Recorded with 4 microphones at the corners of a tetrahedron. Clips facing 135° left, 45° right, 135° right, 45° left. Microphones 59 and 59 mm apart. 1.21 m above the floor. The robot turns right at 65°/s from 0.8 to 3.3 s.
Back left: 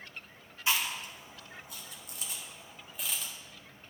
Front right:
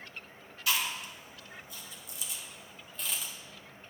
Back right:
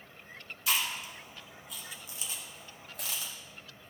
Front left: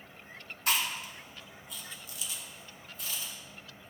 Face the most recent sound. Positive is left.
turn(degrees=-125)